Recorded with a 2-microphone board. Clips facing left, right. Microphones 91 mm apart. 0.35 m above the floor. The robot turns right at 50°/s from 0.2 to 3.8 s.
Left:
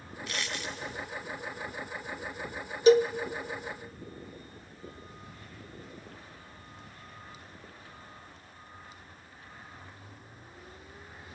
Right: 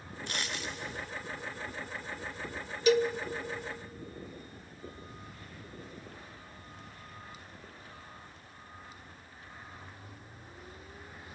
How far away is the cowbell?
About 0.5 m.